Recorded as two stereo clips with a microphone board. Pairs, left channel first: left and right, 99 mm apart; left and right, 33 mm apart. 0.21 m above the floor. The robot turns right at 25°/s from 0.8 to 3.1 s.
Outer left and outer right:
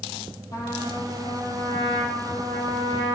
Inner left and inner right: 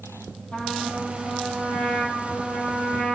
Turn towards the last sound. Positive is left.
turn(degrees=95)